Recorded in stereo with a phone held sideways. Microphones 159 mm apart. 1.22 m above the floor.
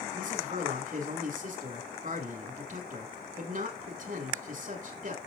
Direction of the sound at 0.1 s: 55° right (ahead or behind).